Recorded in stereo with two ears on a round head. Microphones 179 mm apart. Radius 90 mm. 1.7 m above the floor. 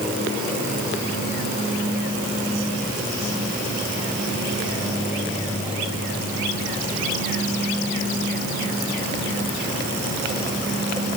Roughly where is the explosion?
I don't hear an explosion.